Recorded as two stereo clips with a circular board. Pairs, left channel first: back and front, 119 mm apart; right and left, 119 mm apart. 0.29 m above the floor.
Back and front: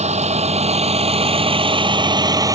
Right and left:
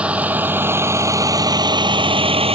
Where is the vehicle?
10° left; by 2.5 s 60° left.